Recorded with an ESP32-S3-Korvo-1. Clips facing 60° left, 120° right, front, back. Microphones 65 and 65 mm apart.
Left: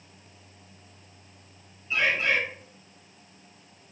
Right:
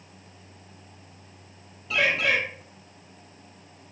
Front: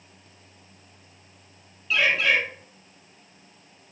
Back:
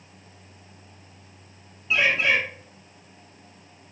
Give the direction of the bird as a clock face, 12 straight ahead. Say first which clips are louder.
Right 1 dB, even; 4 o'clock.